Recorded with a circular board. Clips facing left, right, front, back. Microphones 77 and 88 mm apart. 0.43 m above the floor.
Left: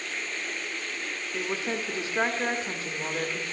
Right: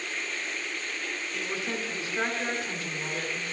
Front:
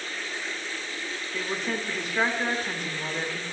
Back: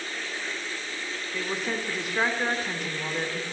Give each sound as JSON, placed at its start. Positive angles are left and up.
{"t": 1.3, "sound": "a woman speaking", "azimuth_deg": 95, "distance_m": 0.9}